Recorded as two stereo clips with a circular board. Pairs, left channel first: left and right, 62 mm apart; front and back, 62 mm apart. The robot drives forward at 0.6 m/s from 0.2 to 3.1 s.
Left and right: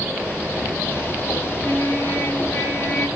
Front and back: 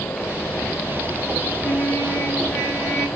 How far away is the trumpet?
About 3.5 m.